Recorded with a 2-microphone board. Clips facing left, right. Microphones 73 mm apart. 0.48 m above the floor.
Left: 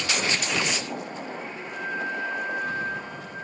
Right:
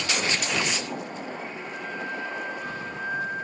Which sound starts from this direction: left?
A flute, at 1.7 s.